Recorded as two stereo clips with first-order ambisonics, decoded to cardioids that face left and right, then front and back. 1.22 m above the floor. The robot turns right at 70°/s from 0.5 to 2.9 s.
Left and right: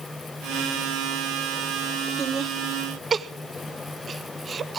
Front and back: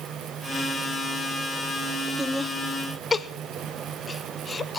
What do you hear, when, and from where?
2.2 s laughter: 100° right, 0.5 m; by 4.8 s 50° right, 0.5 m